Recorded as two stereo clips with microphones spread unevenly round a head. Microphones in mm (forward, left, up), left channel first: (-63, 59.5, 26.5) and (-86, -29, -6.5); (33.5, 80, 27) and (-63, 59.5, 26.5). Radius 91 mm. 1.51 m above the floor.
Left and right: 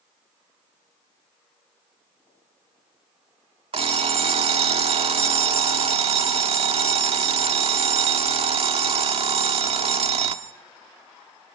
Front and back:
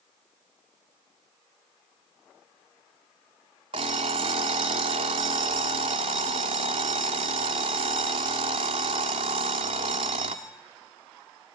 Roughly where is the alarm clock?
Behind right.